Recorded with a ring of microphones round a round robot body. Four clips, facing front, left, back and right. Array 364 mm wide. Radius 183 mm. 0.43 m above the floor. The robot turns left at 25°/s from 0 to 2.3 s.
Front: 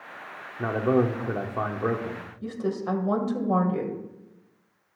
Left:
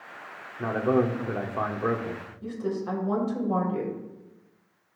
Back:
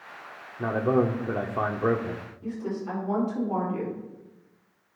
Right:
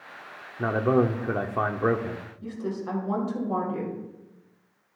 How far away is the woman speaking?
About 2.5 m.